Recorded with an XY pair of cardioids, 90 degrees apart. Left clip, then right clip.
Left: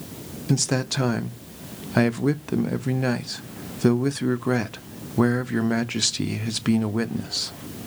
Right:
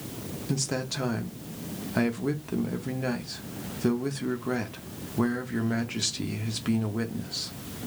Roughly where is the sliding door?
No sliding door in this recording.